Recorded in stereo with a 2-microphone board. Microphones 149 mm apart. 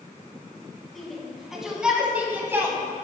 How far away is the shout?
About 2.5 m.